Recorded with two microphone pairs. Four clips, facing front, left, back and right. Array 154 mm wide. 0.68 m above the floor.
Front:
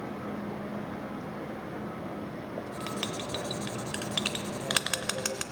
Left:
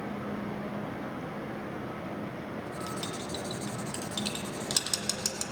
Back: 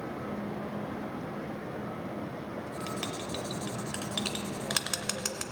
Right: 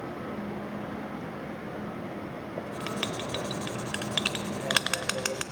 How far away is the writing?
About 0.5 m.